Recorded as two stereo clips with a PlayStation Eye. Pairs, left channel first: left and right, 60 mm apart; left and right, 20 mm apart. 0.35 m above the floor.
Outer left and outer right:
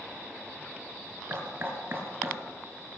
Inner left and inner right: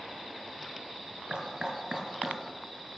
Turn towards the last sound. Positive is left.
turn(degrees=-40)  # may be behind; listen again after turning